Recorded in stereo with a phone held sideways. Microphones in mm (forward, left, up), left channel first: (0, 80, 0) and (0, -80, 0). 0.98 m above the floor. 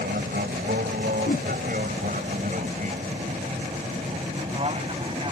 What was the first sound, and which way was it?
An aircraft, 75° right (ahead or behind).